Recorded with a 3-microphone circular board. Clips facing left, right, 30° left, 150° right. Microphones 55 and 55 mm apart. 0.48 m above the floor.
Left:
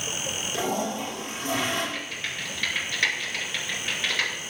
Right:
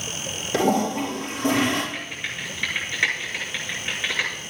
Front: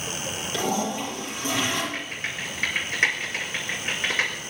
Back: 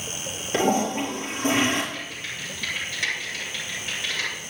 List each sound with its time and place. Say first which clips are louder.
0.5 s a toilet flushing: right 8 dB, back 5 dB; 100° right, 4.5 m
1.9 s typing on a keyboard: right 1 dB, front 3 dB; 15° right, 4.5 m